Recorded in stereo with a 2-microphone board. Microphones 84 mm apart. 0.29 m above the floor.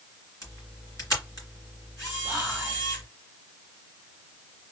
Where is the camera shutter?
40° left (ahead or behind), 2.5 m.